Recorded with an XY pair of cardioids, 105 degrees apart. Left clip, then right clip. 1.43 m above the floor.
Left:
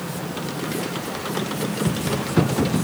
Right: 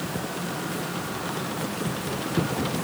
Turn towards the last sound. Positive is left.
No sound to turn to.